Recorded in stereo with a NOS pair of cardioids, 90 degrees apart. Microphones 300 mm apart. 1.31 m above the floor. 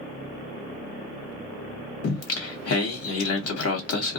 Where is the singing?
50° left, 1.3 m.